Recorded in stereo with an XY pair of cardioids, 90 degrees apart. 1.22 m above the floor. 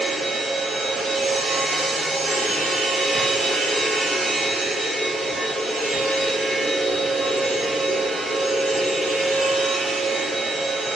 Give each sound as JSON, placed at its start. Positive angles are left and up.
{"t": 0.0, "sound": "a machine running", "azimuth_deg": -65, "distance_m": 0.9}